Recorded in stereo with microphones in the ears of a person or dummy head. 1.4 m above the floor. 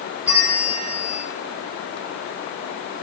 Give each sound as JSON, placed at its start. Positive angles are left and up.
{"t": 0.2, "sound": "a bell", "side_deg": -10, "distance_m": 7.0}